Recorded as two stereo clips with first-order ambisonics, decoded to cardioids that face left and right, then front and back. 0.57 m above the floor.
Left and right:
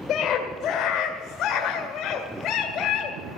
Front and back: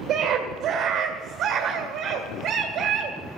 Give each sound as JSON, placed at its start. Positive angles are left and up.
{"t": 0.1, "sound": "a scream", "azimuth_deg": 130, "distance_m": 1.9}